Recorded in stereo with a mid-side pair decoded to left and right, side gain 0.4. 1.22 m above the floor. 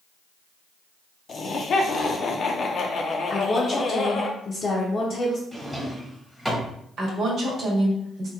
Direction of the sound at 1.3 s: 55° left.